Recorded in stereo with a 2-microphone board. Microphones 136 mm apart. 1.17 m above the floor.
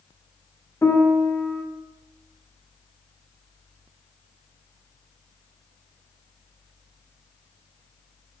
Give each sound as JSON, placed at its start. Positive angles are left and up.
{"t": 0.8, "sound": "a piano", "side_deg": 20, "distance_m": 0.6}